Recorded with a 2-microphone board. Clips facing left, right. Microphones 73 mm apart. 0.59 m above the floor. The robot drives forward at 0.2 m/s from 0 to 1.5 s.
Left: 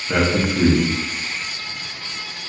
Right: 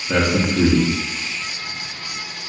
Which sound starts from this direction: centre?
A man speaking, at 0.1 s.